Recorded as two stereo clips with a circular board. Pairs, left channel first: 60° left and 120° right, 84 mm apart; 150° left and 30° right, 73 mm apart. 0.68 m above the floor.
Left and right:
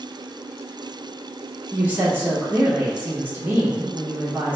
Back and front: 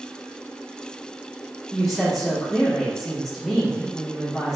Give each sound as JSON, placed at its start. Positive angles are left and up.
{"t": 1.7, "sound": "a woman speaking", "azimuth_deg": -135, "distance_m": 0.9}